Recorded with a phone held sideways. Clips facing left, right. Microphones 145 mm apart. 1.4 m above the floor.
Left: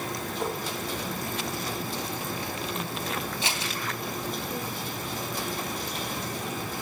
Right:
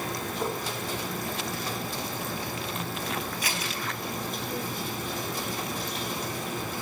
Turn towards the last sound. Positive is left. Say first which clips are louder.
# left 1 dB
turn(degrees=25)  # may be behind; listen again after turning